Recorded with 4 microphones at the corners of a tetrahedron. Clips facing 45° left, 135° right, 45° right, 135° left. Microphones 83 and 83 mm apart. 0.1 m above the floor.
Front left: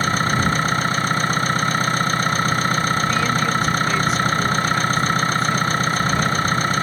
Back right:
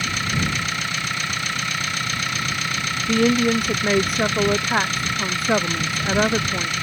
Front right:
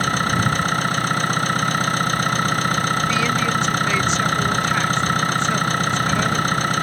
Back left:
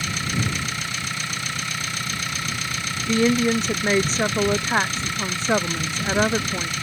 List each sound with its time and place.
0.0 s an engine running: 5° right
3.1 s a woman speaking: 170° right